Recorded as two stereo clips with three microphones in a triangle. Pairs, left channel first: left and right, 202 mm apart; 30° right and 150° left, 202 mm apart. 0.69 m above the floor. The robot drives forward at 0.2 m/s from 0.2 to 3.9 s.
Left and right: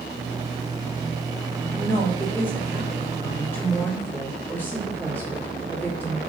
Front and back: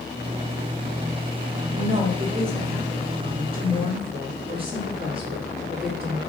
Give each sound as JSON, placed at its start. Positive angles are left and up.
{"t": 1.7, "sound": "a woman speaking", "azimuth_deg": 160, "distance_m": 1.1}